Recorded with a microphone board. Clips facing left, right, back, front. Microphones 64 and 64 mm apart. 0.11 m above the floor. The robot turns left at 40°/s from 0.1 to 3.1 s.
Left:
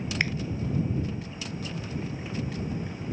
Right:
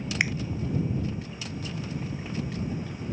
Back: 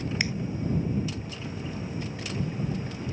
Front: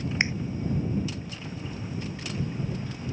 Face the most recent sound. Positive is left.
turn(degrees=-135)